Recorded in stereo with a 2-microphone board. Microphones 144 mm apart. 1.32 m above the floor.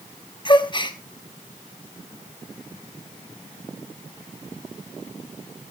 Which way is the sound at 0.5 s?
35° left (ahead or behind).